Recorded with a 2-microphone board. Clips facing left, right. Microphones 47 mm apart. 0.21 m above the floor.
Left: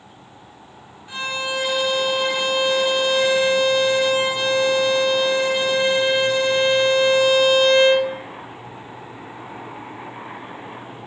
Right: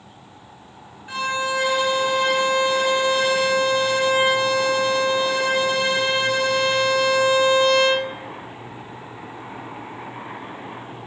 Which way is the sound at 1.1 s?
35° right (ahead or behind).